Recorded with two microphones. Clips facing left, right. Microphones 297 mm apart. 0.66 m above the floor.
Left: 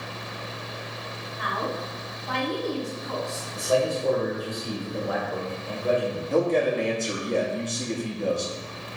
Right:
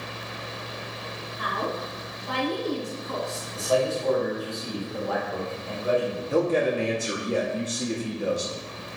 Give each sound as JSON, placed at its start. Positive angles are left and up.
{"t": 1.4, "sound": "a woman speaking", "side_deg": -35, "distance_m": 1.7}
{"t": 3.5, "sound": "a man speaking", "side_deg": 20, "distance_m": 1.2}
{"t": 6.3, "sound": "a man speaking", "side_deg": -5, "distance_m": 0.7}